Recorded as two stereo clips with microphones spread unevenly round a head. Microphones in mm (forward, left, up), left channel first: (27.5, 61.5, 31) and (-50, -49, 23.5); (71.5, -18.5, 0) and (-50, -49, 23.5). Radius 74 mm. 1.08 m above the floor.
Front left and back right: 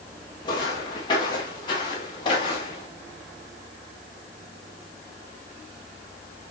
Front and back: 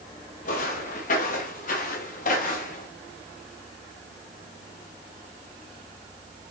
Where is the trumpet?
No trumpet in this recording.